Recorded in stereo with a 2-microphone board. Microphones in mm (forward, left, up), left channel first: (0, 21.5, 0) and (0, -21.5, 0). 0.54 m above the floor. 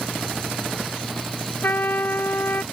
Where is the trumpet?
55° left (ahead or behind).